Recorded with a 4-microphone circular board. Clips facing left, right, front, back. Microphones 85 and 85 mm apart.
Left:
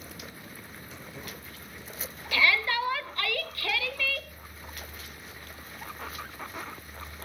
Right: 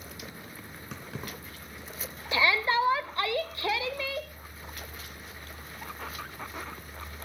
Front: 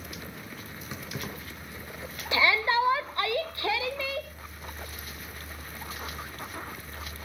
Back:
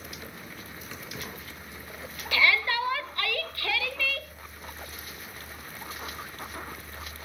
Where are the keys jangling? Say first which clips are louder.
Right 4 dB, front 3 dB; 70° right, 3.5 m.